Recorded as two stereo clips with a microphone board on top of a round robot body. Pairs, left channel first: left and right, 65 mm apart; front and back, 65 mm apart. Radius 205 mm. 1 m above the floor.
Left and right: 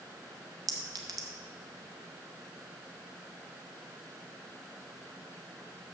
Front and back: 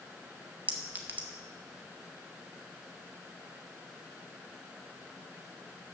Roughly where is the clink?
Behind right.